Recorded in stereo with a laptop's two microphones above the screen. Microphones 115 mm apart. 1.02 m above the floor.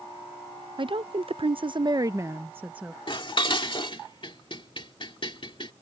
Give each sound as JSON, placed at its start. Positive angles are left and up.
{"t": 0.8, "sound": "a woman speaking", "side_deg": -50}
{"t": 3.1, "sound": "dishes clattering", "side_deg": 50}